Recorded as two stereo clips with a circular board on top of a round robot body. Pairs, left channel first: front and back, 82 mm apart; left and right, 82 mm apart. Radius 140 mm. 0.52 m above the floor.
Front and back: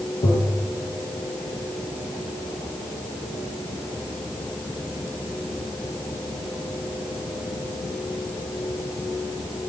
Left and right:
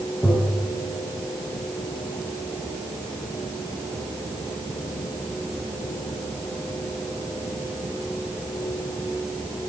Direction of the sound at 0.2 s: 10° left.